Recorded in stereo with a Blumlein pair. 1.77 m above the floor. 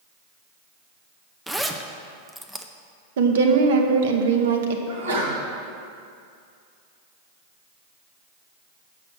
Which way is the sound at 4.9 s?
65° right.